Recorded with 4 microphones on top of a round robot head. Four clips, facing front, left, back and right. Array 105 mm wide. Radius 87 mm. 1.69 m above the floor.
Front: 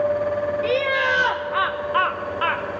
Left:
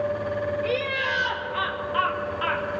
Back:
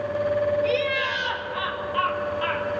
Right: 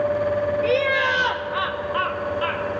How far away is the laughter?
About 1.4 m.